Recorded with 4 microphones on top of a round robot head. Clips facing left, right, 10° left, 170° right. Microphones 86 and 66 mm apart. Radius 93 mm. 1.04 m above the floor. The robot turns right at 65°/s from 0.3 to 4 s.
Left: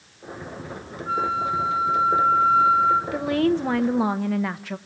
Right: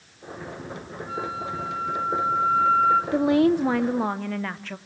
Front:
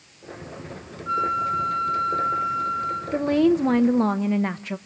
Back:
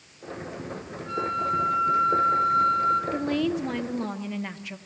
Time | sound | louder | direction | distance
1.1 | a flute | left 8 dB, front 4 dB | 65° left | 1.2 m
3.1 | a woman speaking | right 2 dB, front 7 dB | 45° right | 0.7 m